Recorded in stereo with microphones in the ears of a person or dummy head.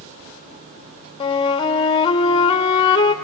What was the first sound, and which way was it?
A flute, 25° left (ahead or behind).